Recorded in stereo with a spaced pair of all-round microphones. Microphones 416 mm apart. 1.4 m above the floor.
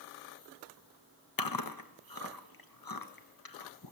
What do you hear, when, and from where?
1.4 s chewing: 55° left (ahead or behind), 0.9 m